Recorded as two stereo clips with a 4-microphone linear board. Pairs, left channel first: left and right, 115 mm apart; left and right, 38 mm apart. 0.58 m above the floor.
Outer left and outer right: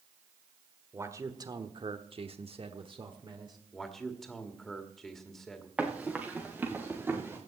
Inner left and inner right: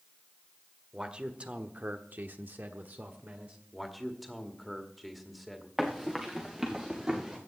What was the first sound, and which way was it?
A man speaking, 25° right (ahead or behind).